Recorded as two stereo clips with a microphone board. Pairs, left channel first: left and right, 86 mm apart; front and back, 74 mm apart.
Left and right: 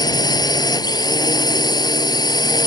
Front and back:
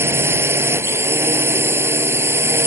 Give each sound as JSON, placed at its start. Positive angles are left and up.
{"t": 0.0, "sound": "a drone", "azimuth_deg": 125}